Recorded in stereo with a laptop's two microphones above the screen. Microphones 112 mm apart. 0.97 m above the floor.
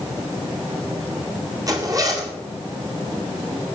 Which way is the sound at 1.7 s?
35° right (ahead or behind).